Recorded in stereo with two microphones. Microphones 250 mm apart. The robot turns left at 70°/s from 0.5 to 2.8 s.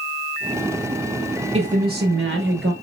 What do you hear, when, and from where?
1.5 s a woman speaking: 35° right, 2 m; by 2.7 s 115° right, 2 m